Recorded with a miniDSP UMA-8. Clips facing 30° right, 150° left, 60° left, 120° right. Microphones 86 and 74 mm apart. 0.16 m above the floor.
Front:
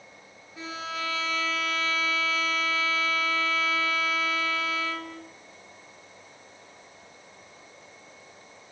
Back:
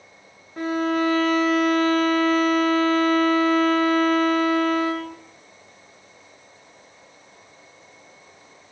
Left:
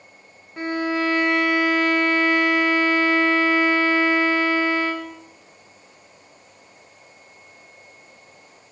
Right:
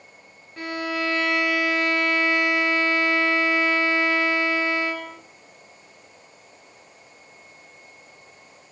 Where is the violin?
125° left, 3 m.